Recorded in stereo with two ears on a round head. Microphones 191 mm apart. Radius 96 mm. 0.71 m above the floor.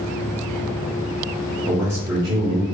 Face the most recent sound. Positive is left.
turn(degrees=-20)  # may be behind; listen again after turning